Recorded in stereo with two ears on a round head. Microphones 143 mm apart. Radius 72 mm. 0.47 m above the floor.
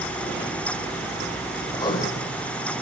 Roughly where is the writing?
Left.